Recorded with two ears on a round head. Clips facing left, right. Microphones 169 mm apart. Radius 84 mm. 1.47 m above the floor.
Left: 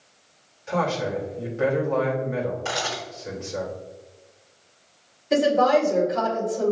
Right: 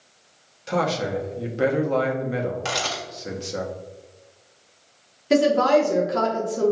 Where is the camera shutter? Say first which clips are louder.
Right 1 dB; 70° right (ahead or behind), 1.6 m.